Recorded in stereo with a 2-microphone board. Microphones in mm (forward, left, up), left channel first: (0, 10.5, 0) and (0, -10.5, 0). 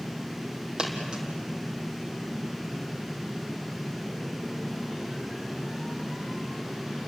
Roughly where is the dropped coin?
Right.